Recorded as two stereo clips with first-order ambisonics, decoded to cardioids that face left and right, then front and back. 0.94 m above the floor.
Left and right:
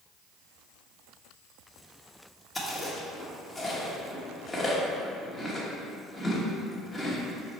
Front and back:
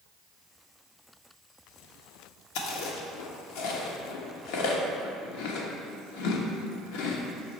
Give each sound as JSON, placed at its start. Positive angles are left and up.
{"t": 2.5, "sound": "chewing", "azimuth_deg": 5, "distance_m": 1.2}